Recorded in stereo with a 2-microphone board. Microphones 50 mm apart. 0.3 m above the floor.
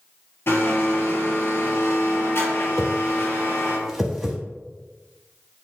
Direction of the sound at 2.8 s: 10° right (ahead or behind).